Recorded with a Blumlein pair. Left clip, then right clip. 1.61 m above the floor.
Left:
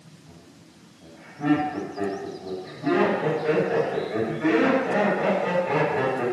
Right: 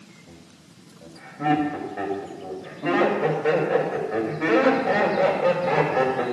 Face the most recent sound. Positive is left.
turn(degrees=-65)